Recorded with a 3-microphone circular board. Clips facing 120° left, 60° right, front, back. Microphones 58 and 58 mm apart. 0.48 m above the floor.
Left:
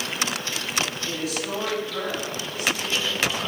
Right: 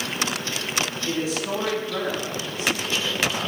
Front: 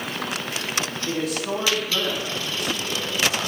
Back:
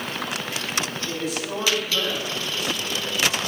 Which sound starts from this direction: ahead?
A man speaking, at 1.1 s.